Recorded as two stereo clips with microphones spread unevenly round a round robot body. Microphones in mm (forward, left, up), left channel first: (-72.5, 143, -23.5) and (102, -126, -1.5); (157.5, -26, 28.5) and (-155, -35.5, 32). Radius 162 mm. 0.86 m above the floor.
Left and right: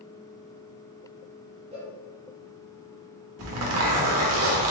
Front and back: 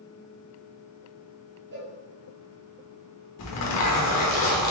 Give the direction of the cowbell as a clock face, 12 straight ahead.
4 o'clock.